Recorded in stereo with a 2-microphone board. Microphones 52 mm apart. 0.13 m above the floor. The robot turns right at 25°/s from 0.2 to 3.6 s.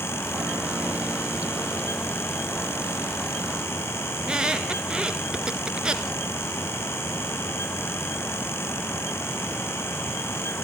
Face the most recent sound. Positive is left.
turn(degrees=-20)  # may be behind; listen again after turning